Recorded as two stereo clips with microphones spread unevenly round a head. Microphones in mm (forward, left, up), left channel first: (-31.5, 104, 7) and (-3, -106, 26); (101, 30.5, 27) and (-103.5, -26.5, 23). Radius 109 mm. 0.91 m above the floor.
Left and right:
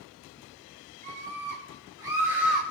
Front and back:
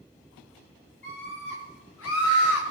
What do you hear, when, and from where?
1.0 s a scream: 25° right, 4.5 m; by 2.6 s 10° left, 3 m